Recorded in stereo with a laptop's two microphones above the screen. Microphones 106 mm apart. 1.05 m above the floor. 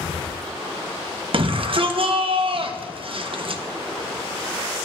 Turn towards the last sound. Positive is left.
turn(degrees=-55)  # may be behind; listen again after turning